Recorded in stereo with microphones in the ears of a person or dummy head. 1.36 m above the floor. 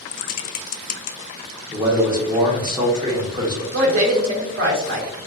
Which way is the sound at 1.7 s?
20° right (ahead or behind).